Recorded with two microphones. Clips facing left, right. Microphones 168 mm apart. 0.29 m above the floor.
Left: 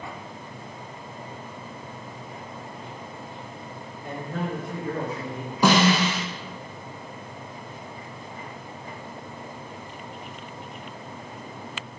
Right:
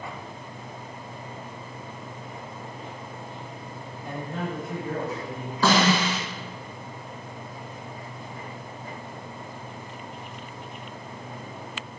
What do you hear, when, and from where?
4.0 s a man speaking: 20° left (ahead or behind), 1.2 m; by 5.5 s 45° right (ahead or behind), 1.3 m
5.6 s a snare drum: 15° left (ahead or behind), 0.5 m